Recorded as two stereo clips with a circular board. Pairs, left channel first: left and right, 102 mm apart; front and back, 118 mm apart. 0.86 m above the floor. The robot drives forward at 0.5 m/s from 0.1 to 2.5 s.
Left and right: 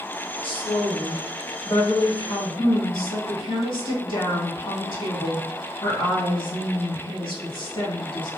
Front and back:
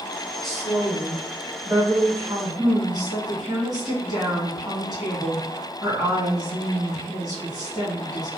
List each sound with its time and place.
0.4 s a woman speaking: 85° left, 1.5 m; by 8.3 s 125° left, 1.8 m